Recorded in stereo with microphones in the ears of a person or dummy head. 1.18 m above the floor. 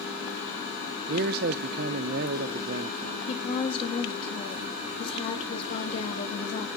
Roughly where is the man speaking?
Right.